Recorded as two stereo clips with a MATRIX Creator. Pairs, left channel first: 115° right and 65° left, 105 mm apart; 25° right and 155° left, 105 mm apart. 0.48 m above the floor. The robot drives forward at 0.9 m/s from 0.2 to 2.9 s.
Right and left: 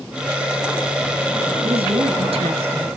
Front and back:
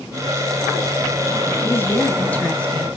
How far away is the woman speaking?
About 3.5 m.